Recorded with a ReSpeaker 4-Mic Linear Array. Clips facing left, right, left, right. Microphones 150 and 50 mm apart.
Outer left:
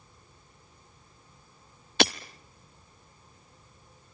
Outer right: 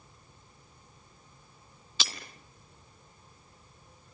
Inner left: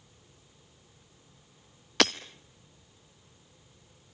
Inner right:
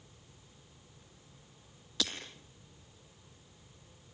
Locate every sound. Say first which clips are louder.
2.0 s breaking glass: outer left 15 dB, inner left 12 dB; 65° left (ahead or behind), 0.7 m